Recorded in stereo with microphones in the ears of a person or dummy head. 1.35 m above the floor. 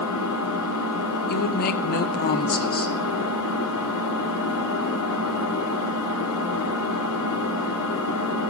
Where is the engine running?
80° left, 2.5 m.